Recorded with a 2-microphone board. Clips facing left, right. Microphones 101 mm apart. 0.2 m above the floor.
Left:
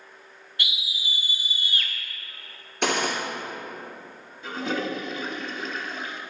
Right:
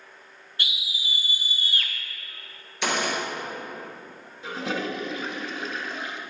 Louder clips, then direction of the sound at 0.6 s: Even; 30° right (ahead or behind).